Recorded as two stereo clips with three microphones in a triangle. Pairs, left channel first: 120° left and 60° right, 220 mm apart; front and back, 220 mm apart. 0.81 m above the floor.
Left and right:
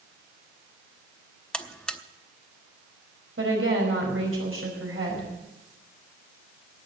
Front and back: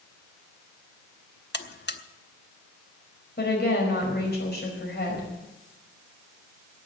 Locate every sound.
1.5 s a buzzer: 35° left, 0.8 m
3.4 s a woman speaking: 40° right, 4.5 m